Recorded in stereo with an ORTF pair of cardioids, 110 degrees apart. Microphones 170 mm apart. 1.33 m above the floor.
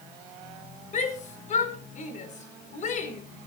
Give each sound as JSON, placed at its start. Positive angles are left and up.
{"t": 0.9, "sound": "a shout", "azimuth_deg": 45, "distance_m": 5.5}